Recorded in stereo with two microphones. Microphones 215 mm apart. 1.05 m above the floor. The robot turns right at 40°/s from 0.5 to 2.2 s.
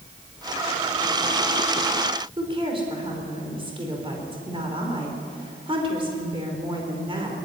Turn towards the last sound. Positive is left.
turn(degrees=-25)  # may be behind; listen again after turning